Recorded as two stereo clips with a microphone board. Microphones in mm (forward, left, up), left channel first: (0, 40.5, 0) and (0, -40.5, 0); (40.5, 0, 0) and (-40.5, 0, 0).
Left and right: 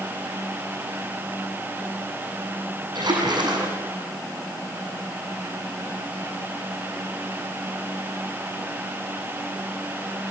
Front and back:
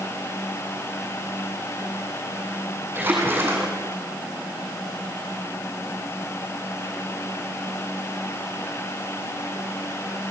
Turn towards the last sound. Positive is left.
turn(degrees=-115)